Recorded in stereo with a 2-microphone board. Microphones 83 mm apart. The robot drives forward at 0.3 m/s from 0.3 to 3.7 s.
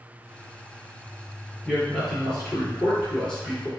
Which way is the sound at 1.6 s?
5° left (ahead or behind).